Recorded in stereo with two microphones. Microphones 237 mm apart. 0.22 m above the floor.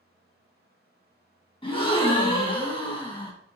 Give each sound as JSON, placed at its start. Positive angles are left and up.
{"t": 1.6, "sound": "a gasp", "side_deg": 20, "distance_m": 0.9}